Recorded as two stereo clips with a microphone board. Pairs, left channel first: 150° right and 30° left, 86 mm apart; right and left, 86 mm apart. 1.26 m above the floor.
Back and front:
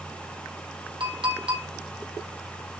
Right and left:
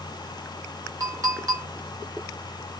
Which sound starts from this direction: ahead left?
A clink, at 1.0 s.